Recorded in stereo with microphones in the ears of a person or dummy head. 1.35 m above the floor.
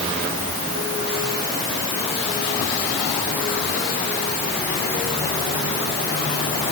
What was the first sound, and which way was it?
Only background noise.